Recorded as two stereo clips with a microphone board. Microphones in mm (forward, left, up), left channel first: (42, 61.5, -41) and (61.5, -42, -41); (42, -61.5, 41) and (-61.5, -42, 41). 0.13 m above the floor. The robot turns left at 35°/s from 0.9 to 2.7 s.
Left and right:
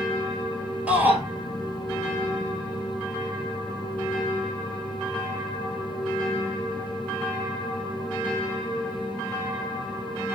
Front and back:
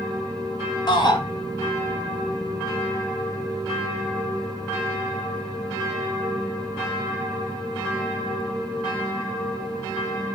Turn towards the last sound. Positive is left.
turn(degrees=-75)